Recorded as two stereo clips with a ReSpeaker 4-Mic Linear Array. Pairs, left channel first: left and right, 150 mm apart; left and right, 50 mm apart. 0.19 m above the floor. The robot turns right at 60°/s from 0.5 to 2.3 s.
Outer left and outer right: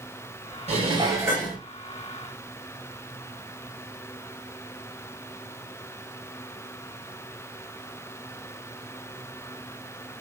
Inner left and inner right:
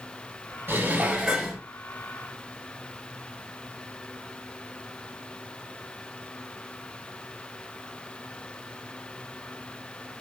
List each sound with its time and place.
0.7 s dishes clattering: 55° right, 2 m; by 1.6 s straight ahead, 2 m